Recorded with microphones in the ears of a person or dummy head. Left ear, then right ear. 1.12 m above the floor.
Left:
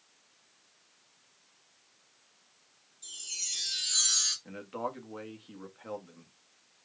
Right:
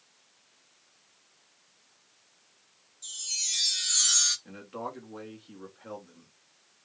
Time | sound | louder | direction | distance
3.0 | a chime | right 5 dB | 5° left (ahead or behind) | 2.5 m
4.5 | a man speaking | left 1 dB | 20° left (ahead or behind) | 1.4 m